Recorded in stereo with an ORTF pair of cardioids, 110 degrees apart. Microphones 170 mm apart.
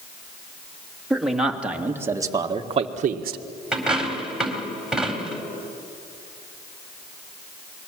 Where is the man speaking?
Straight ahead, 3 m; by 3.4 s 65° right, 1.4 m.